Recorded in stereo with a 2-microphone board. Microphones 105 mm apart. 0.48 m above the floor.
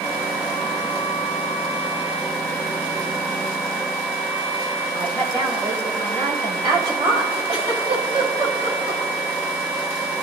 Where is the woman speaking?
45° right (ahead or behind), 2 m.